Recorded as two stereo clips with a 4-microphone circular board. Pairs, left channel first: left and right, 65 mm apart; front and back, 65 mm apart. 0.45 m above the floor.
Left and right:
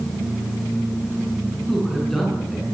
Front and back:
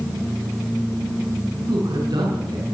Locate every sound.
1.7 s a man speaking: 175° left, 6.5 m